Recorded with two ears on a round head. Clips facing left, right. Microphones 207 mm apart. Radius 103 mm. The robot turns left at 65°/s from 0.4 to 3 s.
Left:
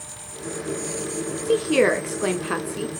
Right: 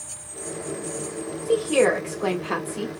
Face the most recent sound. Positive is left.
turn(degrees=0)